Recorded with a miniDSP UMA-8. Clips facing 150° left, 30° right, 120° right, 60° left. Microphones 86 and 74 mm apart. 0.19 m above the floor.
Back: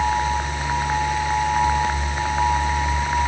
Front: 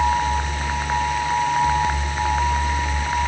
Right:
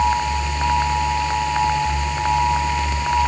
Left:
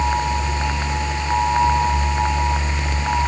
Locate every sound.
Only background noise.